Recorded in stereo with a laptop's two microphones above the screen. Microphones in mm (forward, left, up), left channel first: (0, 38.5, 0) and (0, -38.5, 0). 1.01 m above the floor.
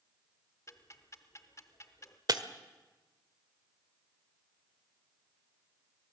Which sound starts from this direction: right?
Breaking glass, at 2.3 s.